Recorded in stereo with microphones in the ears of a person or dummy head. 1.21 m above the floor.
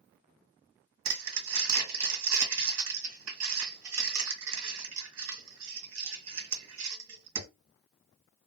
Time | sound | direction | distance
1.1 | crumpling | 75° right (ahead or behind) | 1.7 m